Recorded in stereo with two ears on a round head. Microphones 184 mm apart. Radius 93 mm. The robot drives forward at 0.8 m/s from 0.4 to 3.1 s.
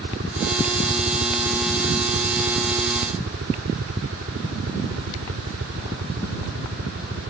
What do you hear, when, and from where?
0.0 s a helicopter: 55° right (ahead or behind); by 7.3 s 65° right (ahead or behind)